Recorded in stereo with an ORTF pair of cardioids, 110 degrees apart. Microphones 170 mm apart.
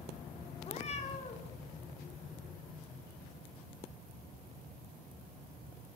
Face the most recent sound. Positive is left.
turn(degrees=40)